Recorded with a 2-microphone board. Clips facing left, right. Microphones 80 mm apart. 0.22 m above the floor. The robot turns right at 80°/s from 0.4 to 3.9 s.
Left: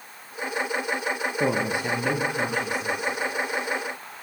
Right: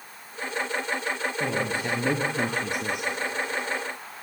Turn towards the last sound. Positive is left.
turn(degrees=-20)